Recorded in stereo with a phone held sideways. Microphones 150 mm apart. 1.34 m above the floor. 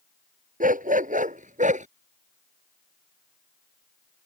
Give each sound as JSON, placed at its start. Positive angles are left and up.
{"t": 0.6, "sound": "a dog barking", "side_deg": -65}